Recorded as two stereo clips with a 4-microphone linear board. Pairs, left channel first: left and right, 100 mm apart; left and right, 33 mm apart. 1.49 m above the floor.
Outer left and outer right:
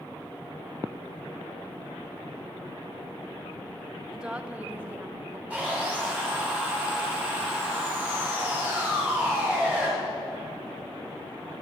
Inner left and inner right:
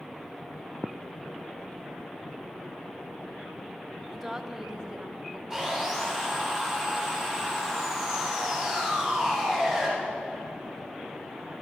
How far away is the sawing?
About 9.5 m.